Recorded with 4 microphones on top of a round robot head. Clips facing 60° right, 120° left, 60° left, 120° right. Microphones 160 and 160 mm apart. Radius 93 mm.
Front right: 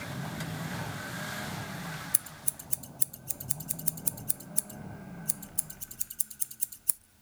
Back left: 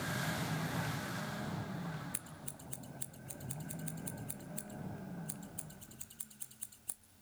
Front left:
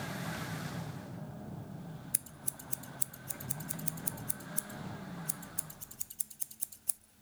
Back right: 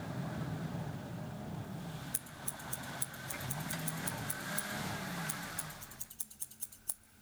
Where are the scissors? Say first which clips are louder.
Front right 2 dB, back right 2 dB; 15° right, 0.5 m.